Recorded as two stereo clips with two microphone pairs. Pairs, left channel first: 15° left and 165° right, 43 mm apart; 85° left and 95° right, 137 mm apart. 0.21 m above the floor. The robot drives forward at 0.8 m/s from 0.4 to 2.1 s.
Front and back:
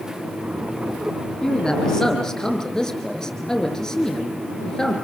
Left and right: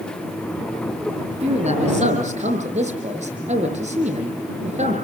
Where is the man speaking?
65° right, 6.5 m; by 5.0 s 70° right, 6.5 m.